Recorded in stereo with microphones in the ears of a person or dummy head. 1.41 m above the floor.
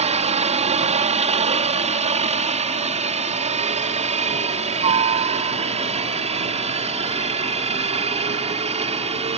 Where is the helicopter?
30° right (ahead or behind).